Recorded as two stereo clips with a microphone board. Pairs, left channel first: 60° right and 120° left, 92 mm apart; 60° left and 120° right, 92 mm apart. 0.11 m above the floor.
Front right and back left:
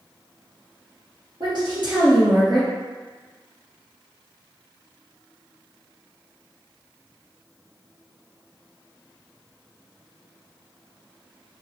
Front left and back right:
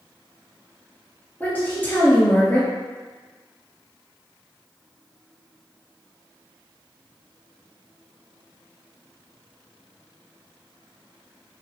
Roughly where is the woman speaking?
Behind left.